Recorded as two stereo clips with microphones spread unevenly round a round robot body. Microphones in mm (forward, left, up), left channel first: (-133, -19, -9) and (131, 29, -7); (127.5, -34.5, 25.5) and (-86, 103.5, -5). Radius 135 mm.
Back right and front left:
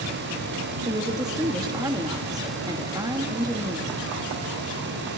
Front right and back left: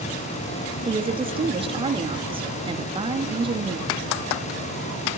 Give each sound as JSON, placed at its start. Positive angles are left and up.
{"t": 0.8, "sound": "a woman speaking", "azimuth_deg": 85, "distance_m": 1.4}